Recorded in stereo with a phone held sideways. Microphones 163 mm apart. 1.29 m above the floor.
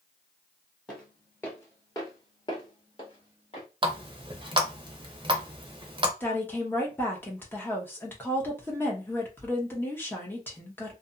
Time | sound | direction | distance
0.9 | footsteps | 5° left (ahead or behind) | 1.4 m
3.8 | a running tap | 30° right (ahead or behind) | 0.6 m
6.2 | a woman speaking | 10° left (ahead or behind) | 1.0 m